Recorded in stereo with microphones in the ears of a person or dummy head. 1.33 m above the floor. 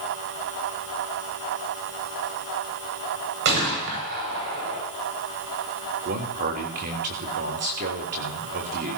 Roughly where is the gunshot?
Right.